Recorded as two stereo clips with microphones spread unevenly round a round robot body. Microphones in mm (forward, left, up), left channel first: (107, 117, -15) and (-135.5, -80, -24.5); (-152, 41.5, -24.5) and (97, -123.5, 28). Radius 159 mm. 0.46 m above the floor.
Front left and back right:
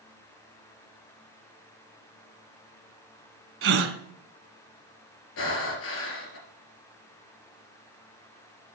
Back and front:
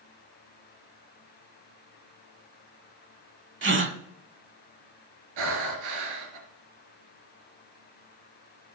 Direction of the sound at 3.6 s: 85° right.